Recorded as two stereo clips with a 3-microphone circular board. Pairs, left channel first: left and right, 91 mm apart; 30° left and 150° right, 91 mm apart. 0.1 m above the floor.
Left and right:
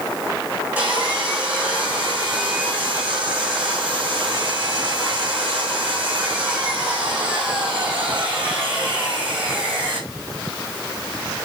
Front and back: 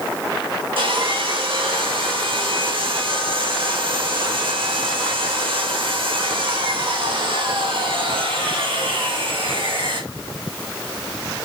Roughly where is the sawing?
Behind.